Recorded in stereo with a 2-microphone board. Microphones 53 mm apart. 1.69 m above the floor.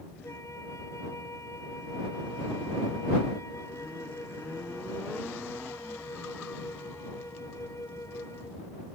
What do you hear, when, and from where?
0.2 s a flute: 85° left